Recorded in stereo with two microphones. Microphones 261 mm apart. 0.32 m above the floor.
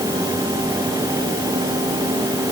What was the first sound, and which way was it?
Only background noise.